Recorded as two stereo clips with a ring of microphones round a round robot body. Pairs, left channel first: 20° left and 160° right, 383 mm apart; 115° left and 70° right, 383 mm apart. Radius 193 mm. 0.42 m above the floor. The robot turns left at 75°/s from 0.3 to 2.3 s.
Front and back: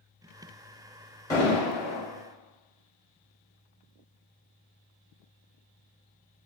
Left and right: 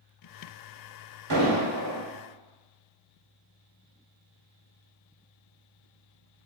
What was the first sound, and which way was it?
An explosion, 55° right.